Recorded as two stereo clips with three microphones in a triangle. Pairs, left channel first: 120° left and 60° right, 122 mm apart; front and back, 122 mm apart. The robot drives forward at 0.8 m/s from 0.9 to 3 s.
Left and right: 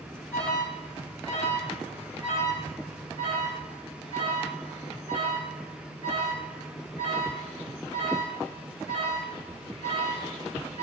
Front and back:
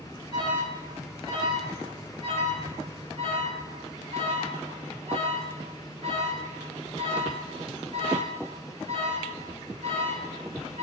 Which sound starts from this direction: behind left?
An alarm, at 0.3 s.